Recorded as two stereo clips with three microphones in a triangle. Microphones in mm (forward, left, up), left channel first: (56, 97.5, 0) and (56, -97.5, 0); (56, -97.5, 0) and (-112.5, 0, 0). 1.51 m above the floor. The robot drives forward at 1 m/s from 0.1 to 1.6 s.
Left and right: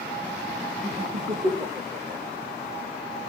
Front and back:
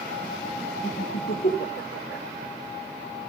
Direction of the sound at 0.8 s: 40° right.